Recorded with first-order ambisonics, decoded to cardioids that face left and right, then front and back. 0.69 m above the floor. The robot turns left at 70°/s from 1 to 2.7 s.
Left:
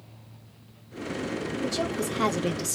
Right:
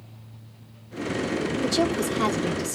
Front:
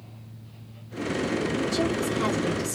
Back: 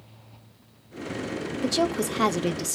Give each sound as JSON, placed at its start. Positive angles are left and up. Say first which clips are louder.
{"t": 1.6, "sound": "a woman speaking", "louder": "right 5 dB, back 1 dB", "azimuth_deg": -140, "distance_m": 0.6}